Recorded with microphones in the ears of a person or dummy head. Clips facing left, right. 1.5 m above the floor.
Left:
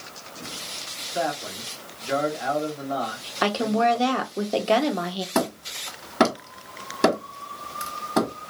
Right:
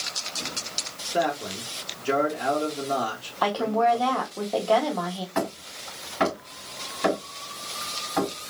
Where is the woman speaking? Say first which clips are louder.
Left 1 dB; 35° left (ahead or behind), 0.9 m.